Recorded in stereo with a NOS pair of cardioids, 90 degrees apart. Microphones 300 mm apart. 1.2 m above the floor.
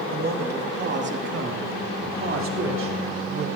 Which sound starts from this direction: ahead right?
A man speaking, at 0.1 s.